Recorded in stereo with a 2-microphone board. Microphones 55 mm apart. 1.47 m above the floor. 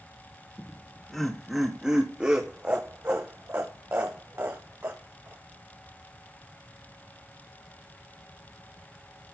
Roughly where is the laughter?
Left.